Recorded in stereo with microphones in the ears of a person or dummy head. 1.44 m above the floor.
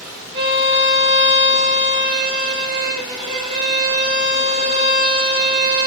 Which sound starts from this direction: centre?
A violin, at 0.3 s.